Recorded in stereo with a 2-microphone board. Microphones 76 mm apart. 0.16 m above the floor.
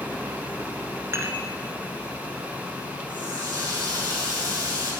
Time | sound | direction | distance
1.1 | dishes clattering | 35° right (ahead or behind) | 1.1 m
3.1 | a running tap | 45° right (ahead or behind) | 4 m